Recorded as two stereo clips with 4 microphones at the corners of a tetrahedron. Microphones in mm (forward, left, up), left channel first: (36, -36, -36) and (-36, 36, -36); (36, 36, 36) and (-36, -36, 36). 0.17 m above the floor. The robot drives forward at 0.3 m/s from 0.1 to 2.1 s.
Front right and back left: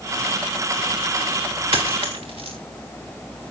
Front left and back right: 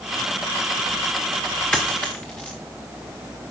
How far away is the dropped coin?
About 3 m.